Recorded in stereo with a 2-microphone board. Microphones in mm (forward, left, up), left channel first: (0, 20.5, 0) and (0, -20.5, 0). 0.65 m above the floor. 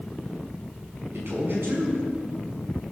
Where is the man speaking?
75° right (ahead or behind), 6.5 m.